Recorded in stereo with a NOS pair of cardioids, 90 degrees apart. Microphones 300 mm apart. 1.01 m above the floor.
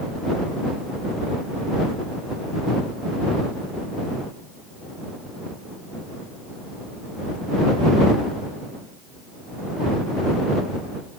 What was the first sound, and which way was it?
Only background noise.